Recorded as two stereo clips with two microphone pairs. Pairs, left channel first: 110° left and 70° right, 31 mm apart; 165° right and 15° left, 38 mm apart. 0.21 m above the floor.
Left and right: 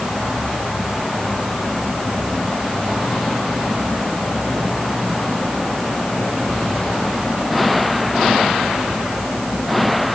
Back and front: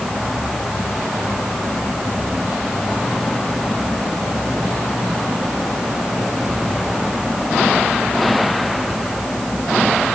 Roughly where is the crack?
I don't hear a crack.